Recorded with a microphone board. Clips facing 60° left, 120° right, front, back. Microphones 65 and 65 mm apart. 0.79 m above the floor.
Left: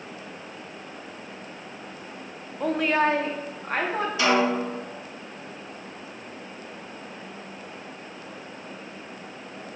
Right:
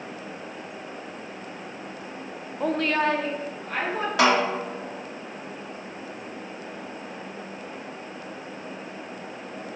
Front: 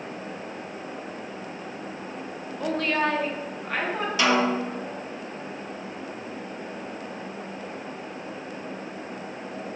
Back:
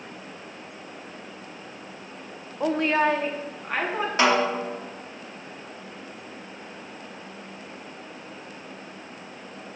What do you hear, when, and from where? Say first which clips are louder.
2.6 s a woman speaking: left 1 dB, back 3 dB; 165° left, 0.5 m; by 4.1 s 95° left, 1.3 m
4.2 s a snare drum: right 1 dB, back 1 dB; 130° right, 1.5 m